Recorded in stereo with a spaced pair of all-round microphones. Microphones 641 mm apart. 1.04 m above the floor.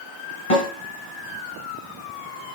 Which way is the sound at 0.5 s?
70° left (ahead or behind).